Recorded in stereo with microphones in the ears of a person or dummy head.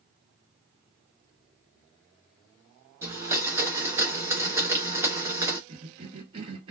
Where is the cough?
30° right (ahead or behind), 0.7 m.